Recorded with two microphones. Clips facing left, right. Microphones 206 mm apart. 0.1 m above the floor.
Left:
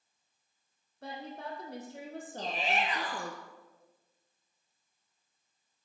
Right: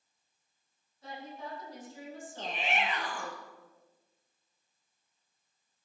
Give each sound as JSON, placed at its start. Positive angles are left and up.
{"t": 1.0, "sound": "a woman speaking", "side_deg": 70, "distance_m": 4.5}
{"t": 2.4, "sound": "a shout", "side_deg": 40, "distance_m": 2.0}